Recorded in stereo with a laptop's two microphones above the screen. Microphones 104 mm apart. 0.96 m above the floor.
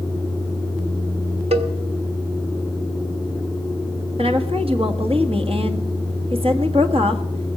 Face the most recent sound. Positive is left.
turn(degrees=-65)  # may be behind; listen again after turning